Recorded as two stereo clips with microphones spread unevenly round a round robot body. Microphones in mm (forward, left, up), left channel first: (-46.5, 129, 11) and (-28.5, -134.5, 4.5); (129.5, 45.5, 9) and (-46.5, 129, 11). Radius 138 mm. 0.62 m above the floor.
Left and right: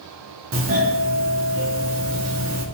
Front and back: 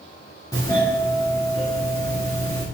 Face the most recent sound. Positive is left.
turn(degrees=-100)